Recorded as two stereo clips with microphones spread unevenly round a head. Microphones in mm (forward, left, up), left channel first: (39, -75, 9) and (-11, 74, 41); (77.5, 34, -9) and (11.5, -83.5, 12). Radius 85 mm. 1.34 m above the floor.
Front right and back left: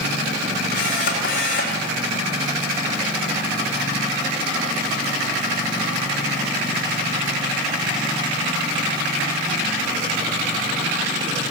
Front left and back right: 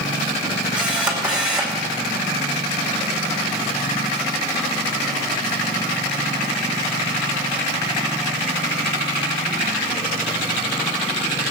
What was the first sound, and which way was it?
A camera shutter, 40° right.